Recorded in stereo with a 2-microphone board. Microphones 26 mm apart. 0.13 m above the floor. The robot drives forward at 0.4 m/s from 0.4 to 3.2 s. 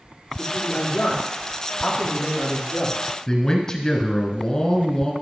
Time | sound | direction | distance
0.4 | a man speaking | 50° left (ahead or behind) | 5 m
3.3 | a man speaking | 25° left (ahead or behind) | 1.5 m